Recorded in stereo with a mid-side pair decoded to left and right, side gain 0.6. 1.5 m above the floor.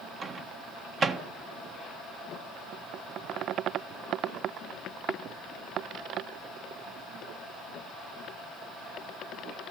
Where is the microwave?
35° right, 1.5 m.